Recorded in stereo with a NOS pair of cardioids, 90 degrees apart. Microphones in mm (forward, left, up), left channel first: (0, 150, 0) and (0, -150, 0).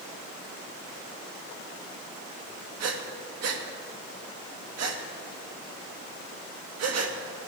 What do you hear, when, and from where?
2.8 s breathing: 55° right, 1.7 m